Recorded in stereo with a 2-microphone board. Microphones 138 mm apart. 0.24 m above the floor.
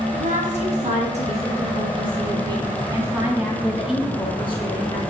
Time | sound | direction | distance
0.1 | a woman speaking | 60° right (ahead or behind) | 3 m